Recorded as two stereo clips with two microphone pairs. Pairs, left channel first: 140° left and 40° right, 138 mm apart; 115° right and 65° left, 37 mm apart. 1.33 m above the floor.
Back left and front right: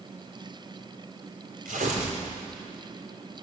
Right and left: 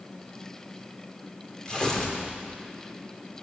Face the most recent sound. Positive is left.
turn(degrees=-45)